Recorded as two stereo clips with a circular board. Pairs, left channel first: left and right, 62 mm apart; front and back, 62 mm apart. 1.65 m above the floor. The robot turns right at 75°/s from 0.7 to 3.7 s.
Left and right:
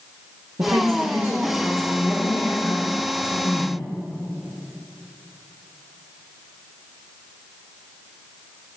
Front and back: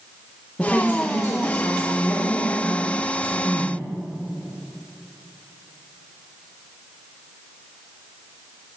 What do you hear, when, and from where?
0.6 s a woman speaking: 80° right, 1.1 m; by 3.9 s 145° left, 1.1 m